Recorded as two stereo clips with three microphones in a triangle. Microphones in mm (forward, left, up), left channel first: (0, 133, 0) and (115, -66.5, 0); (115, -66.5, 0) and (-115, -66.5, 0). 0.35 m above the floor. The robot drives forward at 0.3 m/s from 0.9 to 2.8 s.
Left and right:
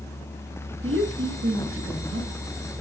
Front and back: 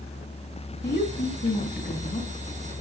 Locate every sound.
0.8 s a woman speaking: 45° right, 3.5 m; by 2.3 s 50° right, 3 m